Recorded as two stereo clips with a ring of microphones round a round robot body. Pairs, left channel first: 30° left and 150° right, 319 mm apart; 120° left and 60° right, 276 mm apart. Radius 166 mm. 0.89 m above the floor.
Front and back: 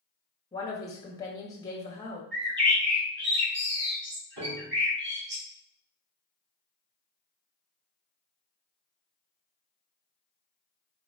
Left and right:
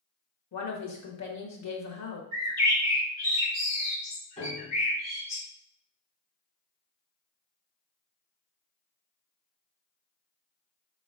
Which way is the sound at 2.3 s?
155° left.